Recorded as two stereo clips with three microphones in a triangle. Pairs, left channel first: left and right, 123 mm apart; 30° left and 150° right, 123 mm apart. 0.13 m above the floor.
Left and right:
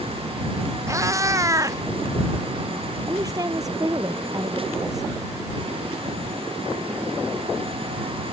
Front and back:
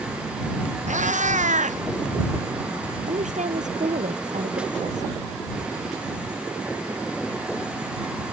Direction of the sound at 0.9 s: 155° right.